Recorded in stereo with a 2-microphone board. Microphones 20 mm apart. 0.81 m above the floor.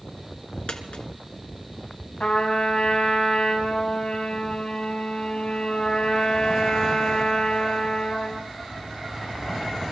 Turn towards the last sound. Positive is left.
turn(degrees=75)  # may be behind; listen again after turning